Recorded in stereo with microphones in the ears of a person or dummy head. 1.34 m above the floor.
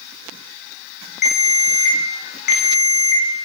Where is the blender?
No blender in this recording.